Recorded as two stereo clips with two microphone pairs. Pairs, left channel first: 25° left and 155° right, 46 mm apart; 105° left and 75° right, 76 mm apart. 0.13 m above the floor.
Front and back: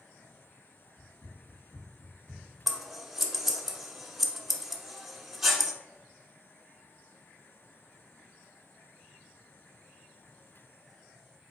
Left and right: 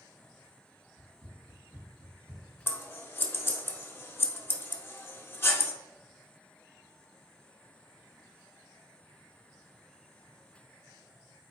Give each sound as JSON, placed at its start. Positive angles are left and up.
{"t": 1.0, "sound": "running footsteps", "azimuth_deg": -25, "distance_m": 1.7}
{"t": 2.7, "sound": "scissors", "azimuth_deg": 130, "distance_m": 0.6}